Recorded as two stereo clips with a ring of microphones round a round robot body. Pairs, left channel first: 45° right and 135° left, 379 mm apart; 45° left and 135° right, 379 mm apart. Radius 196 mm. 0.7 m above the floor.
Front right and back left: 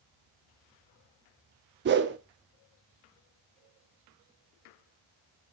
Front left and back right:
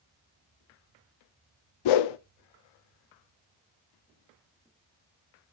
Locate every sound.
1.9 s a whoosh: 75° left, 0.5 m